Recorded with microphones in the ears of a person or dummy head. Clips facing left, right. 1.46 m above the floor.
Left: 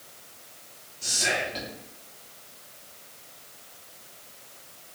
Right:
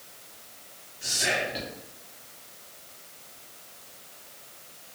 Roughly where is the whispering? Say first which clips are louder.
Even; centre.